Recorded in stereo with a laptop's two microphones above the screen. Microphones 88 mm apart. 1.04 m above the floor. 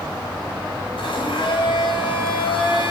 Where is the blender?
85° left, 6.5 m.